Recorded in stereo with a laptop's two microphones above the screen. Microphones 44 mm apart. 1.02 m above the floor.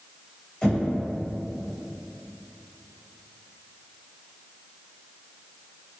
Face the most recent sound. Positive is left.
turn(degrees=20)  # may be behind; listen again after turning